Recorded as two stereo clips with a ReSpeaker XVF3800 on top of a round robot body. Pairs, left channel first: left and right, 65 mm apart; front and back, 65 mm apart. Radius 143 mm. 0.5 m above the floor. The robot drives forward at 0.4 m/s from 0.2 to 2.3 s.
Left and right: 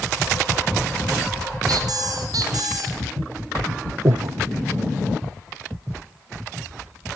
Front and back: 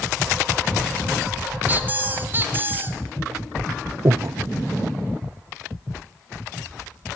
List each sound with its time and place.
1.7 s a squeak: 115° right, 3 m; by 3.0 s 120° right, 3 m
4.0 s breathing: 130° right, 0.6 m